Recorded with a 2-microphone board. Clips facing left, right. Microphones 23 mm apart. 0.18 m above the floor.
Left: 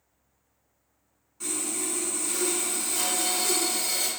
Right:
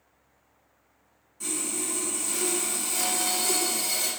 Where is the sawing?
20° left (ahead or behind), 1.1 m.